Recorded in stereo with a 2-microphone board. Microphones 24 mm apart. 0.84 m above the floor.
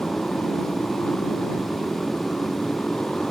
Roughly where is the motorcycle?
Left.